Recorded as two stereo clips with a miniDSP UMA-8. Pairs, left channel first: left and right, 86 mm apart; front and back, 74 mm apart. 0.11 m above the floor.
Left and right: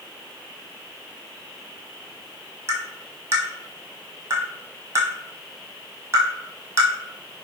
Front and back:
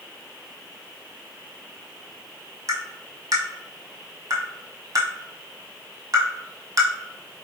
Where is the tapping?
145° right, 1.1 m.